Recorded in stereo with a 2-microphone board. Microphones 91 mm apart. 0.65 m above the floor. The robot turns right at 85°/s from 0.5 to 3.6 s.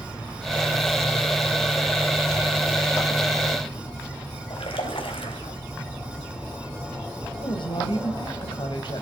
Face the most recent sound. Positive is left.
turn(degrees=60)  # may be behind; listen again after turning